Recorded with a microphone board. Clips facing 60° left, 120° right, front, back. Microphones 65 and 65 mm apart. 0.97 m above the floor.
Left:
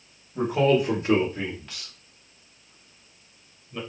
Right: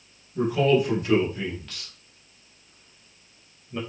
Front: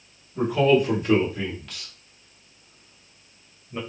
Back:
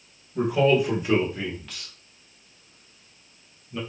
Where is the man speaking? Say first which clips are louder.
Even, front 1 dB; 110° left, 1.2 m; by 3.8 s 60° right, 1.2 m.